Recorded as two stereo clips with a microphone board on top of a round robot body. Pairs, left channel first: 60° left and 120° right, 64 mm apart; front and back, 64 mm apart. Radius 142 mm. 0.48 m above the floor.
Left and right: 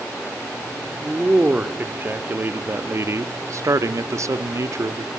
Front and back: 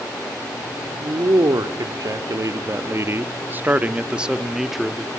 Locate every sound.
1.0 s a man speaking: 170° left, 1.7 m; by 5.1 s 90° right, 1.6 m